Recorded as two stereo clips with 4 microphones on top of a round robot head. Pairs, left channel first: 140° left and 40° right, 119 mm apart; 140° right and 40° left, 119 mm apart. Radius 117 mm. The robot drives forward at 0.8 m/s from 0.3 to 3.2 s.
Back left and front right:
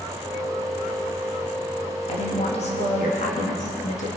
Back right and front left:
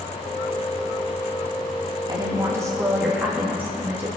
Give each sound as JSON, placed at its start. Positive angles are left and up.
{"t": 2.1, "sound": "a woman speaking", "azimuth_deg": 100, "distance_m": 2.5}